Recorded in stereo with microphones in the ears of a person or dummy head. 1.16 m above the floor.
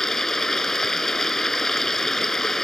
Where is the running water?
Centre (ahead or behind).